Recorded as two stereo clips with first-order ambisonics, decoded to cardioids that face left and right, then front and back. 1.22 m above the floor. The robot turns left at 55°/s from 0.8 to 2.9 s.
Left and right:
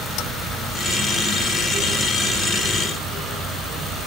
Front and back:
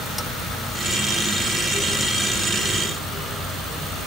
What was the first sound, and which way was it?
Only background noise.